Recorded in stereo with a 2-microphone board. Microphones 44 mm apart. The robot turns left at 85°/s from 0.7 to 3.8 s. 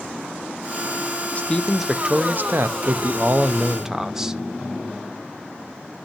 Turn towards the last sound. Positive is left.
turn(degrees=-165)